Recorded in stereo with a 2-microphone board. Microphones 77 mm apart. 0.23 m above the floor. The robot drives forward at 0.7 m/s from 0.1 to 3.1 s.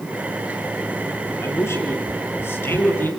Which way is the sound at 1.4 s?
35° left (ahead or behind).